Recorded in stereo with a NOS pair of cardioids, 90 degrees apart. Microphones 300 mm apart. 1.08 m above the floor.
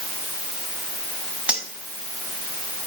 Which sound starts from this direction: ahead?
Cutlery clinking, at 1.5 s.